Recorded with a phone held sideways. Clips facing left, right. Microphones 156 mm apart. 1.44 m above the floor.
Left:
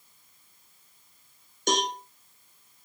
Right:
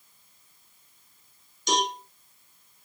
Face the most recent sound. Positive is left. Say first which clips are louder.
# even
turn(degrees=55)  # may be behind; listen again after turning